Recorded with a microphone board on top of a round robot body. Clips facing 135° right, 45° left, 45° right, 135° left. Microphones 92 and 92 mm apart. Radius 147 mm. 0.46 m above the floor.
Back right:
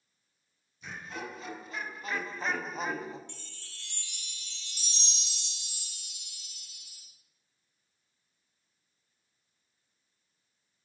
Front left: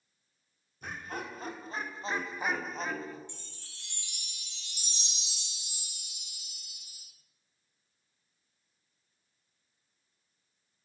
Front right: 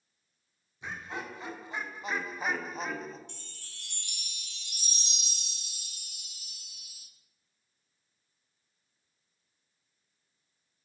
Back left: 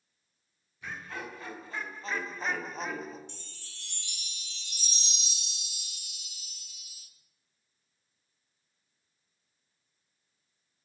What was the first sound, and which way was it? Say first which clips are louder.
Laughter: front left 1 dB, front right 1 dB; 20° left.